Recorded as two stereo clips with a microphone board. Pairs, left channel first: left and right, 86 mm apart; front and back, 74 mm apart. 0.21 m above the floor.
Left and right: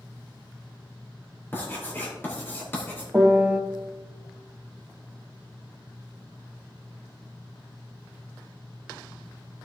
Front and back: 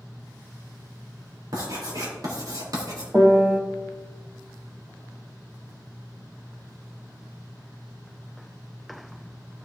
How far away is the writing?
About 4 m.